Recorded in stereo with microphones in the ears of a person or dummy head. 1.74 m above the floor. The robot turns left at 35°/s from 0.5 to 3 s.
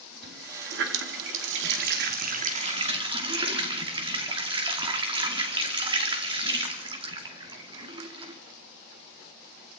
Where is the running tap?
70° right, 2.5 m; by 8.4 s 155° right, 2.5 m.